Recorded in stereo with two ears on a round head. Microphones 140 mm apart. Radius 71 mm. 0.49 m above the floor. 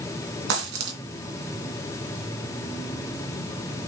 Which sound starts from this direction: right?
A dropped coin, at 0.5 s.